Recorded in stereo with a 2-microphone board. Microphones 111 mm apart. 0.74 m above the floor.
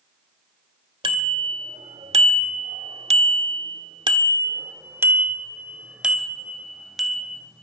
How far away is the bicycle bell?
About 2 m.